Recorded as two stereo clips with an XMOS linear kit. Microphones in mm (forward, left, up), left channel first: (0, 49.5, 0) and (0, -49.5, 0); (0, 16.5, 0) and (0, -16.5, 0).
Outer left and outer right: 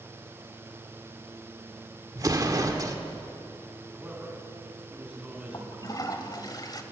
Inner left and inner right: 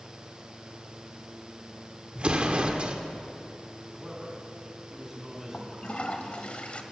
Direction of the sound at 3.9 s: 15° right (ahead or behind).